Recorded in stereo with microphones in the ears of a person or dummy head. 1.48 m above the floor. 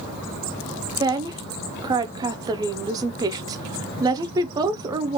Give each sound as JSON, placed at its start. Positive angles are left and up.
{"t": 1.0, "sound": "a woman speaking", "side_deg": -25, "distance_m": 0.5}